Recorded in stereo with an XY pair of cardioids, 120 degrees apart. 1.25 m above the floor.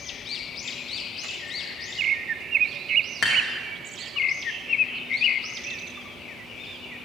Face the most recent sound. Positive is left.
turn(degrees=50)